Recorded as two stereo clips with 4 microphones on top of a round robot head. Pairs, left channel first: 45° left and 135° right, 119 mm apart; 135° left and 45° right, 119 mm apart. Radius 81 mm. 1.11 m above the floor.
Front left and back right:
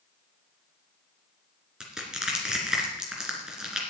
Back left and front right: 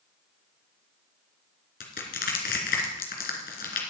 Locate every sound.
1.8 s crushing: 135° left, 3 m